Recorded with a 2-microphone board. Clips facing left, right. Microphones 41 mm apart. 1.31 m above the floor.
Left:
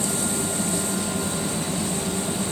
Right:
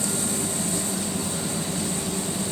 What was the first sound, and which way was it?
Only background noise.